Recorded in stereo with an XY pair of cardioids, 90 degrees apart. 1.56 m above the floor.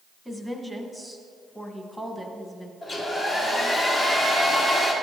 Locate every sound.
0.2 s a woman speaking: 5° left, 1.5 m
2.8 s a hair dryer: 40° left, 2 m